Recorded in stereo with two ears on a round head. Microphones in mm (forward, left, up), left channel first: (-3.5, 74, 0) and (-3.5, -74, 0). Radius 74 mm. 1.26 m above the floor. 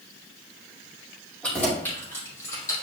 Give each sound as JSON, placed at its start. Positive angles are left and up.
{"t": 1.4, "sound": "keys jangling", "side_deg": 10, "distance_m": 2.5}